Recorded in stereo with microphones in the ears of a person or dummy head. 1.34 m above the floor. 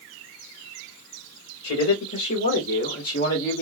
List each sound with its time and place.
1.6 s a man speaking: 80° left, 2 m; by 3.6 s 50° left (ahead or behind), 1.6 m